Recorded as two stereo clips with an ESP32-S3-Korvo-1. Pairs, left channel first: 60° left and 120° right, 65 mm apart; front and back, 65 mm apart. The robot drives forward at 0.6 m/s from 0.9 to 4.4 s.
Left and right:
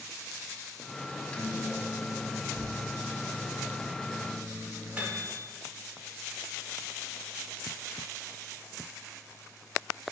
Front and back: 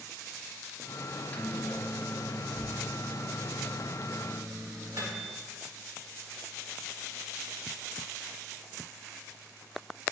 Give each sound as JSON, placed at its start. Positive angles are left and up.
{"t": 1.1, "sound": "a microwave", "azimuth_deg": 5, "distance_m": 0.8}